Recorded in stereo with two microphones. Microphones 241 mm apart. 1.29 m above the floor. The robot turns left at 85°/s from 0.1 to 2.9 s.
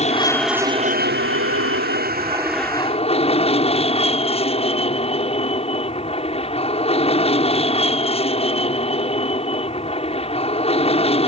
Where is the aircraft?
30° left; by 11.3 s 150° left.